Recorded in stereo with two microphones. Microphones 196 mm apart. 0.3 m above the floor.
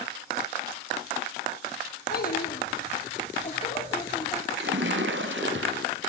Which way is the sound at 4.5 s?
75° right (ahead or behind).